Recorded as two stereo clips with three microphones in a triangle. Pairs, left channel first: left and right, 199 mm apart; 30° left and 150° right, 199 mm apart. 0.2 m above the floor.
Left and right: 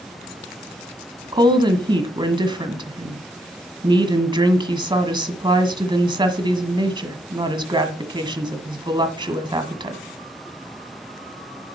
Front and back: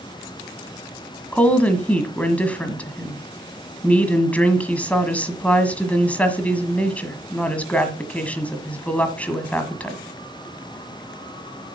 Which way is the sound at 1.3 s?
50° right.